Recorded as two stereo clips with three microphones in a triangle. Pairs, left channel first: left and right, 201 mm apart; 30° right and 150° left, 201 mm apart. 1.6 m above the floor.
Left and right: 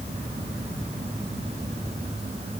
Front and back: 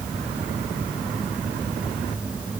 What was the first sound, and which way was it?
Only background noise.